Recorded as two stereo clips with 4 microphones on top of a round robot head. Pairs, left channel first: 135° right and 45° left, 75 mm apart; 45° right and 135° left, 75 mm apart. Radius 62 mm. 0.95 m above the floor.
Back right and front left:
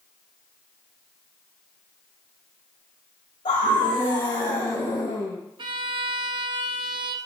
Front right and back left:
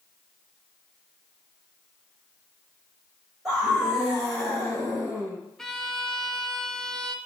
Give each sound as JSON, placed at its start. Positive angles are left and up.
{"t": 3.5, "sound": "a scream", "azimuth_deg": -140, "distance_m": 4.0}
{"t": 5.6, "sound": "a violin", "azimuth_deg": 40, "distance_m": 0.8}